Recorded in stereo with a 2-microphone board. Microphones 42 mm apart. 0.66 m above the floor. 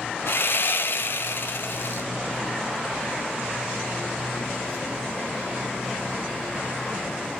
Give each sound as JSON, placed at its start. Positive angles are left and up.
{"t": 0.3, "sound": "sawing", "side_deg": 60, "distance_m": 1.2}